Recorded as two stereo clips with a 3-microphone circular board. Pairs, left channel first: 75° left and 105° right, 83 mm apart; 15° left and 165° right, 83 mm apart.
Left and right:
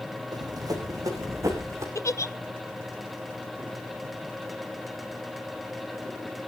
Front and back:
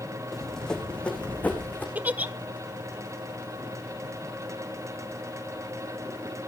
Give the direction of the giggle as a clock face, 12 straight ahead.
8 o'clock.